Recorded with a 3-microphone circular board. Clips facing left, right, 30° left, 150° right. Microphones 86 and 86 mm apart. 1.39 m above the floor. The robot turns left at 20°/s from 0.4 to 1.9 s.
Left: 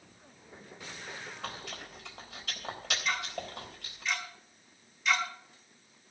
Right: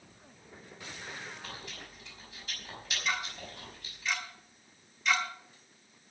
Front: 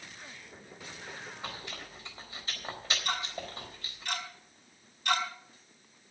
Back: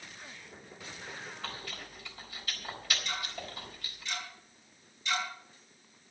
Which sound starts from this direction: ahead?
Ticking, at 3.0 s.